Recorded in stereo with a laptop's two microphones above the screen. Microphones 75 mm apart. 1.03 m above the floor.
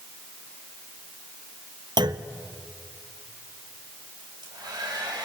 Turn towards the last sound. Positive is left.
turn(degrees=-75)  # may be behind; listen again after turning